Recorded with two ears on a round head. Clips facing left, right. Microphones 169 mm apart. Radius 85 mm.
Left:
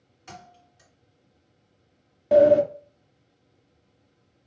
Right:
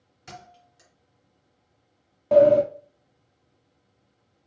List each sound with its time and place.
0.3 s a thud: 20° right (ahead or behind), 2 m
2.3 s a sliding door: 10° left (ahead or behind), 0.5 m